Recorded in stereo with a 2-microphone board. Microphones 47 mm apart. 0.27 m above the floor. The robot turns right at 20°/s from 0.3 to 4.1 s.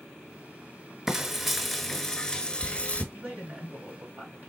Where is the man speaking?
45° right (ahead or behind), 1.5 m; by 4.5 s 40° right (ahead or behind), 1.5 m.